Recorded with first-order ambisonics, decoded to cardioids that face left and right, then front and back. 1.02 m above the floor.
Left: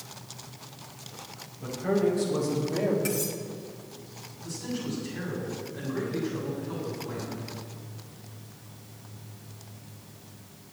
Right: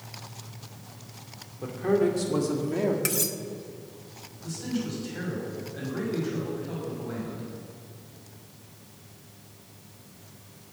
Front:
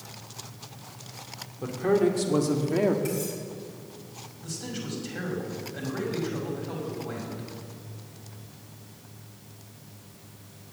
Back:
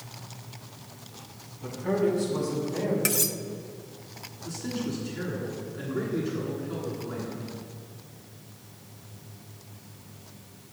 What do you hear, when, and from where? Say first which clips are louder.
1.6 s a man speaking: right 2 dB, front 3 dB; 30° right, 2.5 m; by 3.0 s 15° right, 1.7 m
3.0 s cutlery clinking: right 1 dB, back 3 dB; 150° right, 0.7 m
4.4 s a man speaking: right 1 dB, back 3 dB; 20° right, 5.5 m